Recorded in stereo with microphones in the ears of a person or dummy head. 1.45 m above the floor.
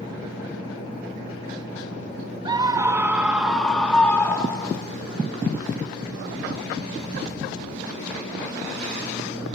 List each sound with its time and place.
2.5 s a scream: 20° right (ahead or behind), 1.7 m; by 4.8 s 20° left (ahead or behind), 3 m